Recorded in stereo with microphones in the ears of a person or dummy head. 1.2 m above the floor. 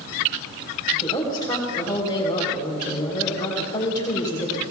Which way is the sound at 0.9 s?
10° left (ahead or behind).